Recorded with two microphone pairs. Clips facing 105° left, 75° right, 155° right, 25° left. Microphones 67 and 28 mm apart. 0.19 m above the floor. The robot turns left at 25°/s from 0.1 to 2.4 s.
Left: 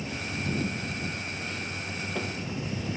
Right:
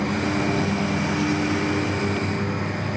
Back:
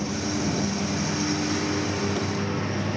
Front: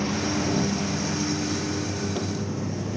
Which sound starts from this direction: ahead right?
A lawn mower, at 0.0 s.